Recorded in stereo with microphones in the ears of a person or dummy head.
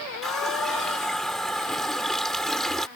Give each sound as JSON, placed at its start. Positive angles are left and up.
{"t": 0.2, "sound": "a running tap", "side_deg": 0}